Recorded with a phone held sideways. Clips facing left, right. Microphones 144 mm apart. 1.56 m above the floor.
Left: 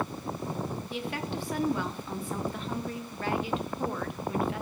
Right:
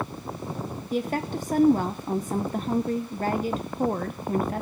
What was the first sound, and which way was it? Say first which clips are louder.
A woman speaking: right 11 dB; 45° right (ahead or behind).